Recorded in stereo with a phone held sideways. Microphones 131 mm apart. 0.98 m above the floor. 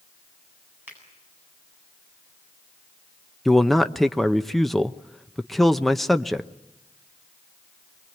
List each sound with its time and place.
0.9 s a finger snap: 15° right (ahead or behind), 8.5 m
3.5 s a man speaking: centre (ahead or behind), 0.8 m